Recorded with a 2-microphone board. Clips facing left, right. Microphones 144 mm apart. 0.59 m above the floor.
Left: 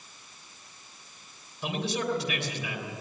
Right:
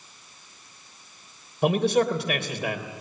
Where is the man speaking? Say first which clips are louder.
Right 9 dB; 60° right (ahead or behind), 3 m.